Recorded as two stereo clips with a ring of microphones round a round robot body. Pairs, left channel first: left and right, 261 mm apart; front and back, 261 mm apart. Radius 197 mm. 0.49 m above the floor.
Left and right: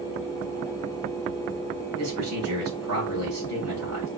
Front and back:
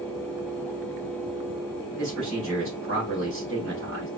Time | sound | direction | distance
2.0 | a man speaking | 135° right | 2.5 m